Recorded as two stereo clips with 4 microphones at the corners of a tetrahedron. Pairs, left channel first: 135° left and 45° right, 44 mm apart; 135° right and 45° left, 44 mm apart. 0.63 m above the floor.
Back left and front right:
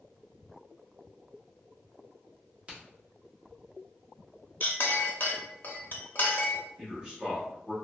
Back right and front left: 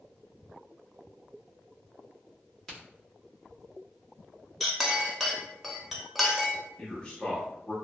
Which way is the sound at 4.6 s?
130° left.